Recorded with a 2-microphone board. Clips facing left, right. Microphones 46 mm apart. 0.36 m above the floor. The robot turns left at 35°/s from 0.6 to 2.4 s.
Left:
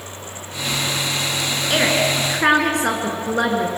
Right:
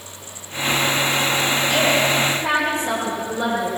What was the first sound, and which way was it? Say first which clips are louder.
A woman speaking: left 2 dB; 50° left (ahead or behind).